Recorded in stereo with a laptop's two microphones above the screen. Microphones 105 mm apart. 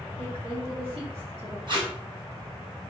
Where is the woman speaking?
70° right (ahead or behind), 1.8 m.